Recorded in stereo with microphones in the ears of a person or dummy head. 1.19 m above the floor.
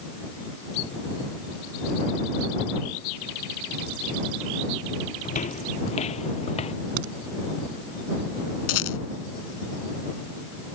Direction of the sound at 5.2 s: 40° left (ahead or behind).